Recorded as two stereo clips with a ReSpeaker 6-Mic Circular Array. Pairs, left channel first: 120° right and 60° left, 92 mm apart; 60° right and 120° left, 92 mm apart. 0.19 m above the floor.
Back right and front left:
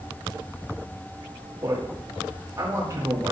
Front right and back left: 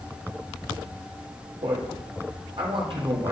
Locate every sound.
1.6 s a man speaking: 115° left, 5.5 m